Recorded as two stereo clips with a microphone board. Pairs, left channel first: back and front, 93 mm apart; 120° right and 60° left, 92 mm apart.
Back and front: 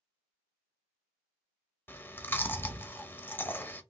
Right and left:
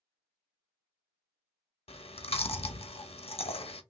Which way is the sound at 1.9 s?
110° right.